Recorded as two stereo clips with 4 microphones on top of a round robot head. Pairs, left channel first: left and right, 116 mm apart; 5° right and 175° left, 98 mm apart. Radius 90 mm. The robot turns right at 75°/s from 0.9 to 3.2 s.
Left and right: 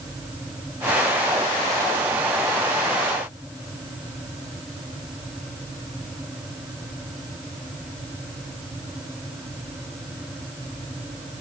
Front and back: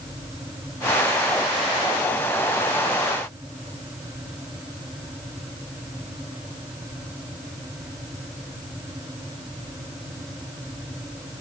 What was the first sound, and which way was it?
Only background noise.